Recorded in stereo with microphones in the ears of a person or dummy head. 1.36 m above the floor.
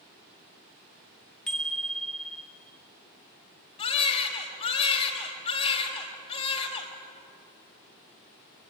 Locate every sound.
1.5 s a bicycle bell: 5° left (ahead or behind), 2.5 m
3.8 s a baby crying: 35° left (ahead or behind), 3.5 m